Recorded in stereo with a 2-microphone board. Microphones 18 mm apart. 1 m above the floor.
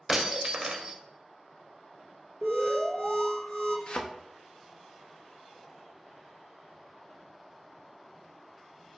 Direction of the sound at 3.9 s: 60° left (ahead or behind).